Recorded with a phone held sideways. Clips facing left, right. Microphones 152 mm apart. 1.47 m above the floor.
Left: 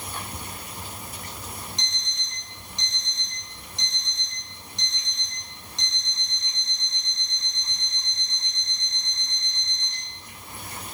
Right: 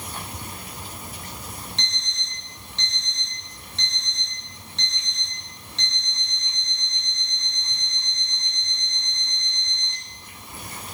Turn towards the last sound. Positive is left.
turn(degrees=15)  # may be behind; listen again after turning